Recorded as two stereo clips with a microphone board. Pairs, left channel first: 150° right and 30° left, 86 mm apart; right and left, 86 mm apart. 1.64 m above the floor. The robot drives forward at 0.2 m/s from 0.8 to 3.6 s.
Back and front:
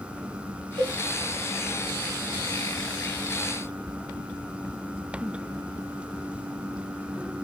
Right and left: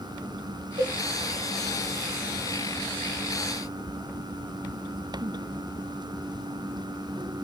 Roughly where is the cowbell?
Ahead left.